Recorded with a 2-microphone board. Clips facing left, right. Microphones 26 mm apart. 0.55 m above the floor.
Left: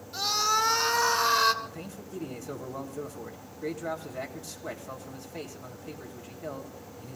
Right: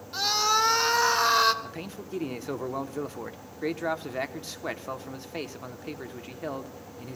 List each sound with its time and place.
0.1 s a scream: 30° right (ahead or behind), 2.5 m; by 1.5 s 15° right (ahead or behind), 1.8 m
1.6 s a man speaking: 40° right (ahead or behind), 1.1 m